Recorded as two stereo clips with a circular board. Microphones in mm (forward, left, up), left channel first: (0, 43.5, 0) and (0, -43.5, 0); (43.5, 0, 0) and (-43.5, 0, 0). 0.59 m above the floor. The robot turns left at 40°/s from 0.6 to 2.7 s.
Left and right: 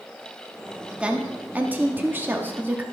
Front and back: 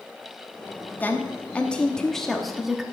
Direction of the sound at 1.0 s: 30° right.